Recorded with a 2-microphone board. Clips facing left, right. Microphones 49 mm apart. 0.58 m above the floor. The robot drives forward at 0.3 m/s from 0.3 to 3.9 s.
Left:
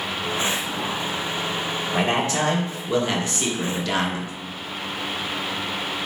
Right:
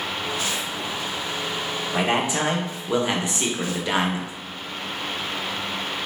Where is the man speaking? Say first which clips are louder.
Even; 15° right (ahead or behind), 1.0 m; by 4.3 s 20° right (ahead or behind), 0.7 m.